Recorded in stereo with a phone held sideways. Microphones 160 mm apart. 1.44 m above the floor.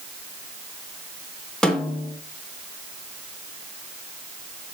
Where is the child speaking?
I don't hear a child speaking.